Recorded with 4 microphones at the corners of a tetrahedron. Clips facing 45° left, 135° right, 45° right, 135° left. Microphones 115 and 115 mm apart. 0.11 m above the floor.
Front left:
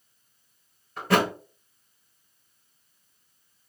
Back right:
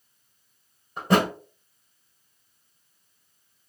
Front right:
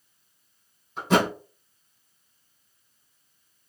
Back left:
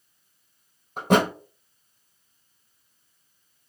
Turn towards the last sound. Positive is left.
turn(degrees=155)